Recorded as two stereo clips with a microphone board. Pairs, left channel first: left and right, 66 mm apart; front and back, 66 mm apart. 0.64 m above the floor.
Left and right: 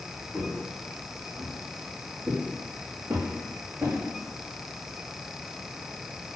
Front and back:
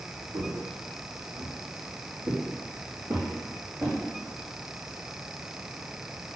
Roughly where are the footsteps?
Behind.